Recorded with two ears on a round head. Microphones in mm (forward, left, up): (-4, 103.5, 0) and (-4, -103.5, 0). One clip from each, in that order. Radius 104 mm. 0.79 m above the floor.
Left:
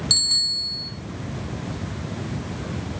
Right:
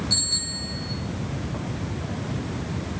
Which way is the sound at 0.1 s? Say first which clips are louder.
Left 6 dB; 80° left.